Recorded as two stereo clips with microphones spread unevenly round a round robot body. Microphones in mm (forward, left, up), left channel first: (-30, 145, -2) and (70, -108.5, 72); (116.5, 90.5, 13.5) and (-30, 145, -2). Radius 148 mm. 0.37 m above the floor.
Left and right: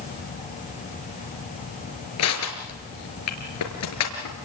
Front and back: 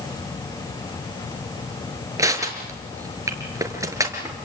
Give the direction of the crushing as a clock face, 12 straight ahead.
9 o'clock.